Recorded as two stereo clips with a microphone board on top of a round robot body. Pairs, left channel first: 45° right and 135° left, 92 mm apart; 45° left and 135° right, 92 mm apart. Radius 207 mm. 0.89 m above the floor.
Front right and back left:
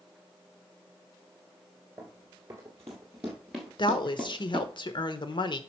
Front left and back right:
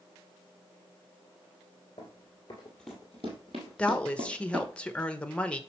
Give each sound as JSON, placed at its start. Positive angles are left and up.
{"t": 2.0, "sound": "running footsteps", "azimuth_deg": 70, "distance_m": 0.9}
{"t": 3.8, "sound": "a woman speaking", "azimuth_deg": -30, "distance_m": 1.1}